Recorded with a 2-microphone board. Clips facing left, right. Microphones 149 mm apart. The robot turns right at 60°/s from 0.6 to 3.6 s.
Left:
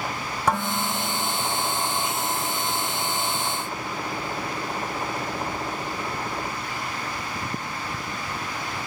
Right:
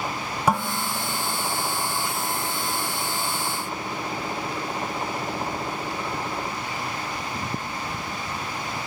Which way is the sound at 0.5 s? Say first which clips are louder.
Even; 10° right.